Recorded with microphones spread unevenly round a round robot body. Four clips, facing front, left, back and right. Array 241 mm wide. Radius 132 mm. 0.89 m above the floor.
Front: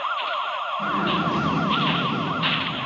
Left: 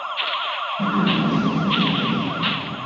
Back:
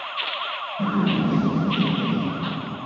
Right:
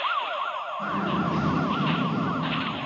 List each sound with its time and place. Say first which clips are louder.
0.8 s a zipper: left 7 dB, back 3 dB; 130° left, 7.5 m